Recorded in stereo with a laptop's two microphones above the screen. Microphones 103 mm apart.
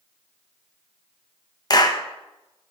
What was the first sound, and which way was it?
A clap, 40° left (ahead or behind).